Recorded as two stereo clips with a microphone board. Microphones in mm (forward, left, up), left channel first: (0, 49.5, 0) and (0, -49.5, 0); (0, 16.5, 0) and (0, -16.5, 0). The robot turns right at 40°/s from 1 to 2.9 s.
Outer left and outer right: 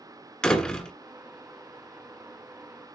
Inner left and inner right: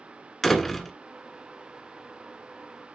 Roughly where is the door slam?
Centre.